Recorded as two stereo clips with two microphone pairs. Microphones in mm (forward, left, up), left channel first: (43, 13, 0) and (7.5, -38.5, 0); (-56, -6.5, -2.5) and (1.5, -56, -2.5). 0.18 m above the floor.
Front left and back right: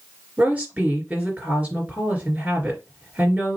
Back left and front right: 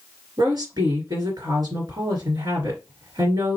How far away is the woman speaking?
About 2.5 m.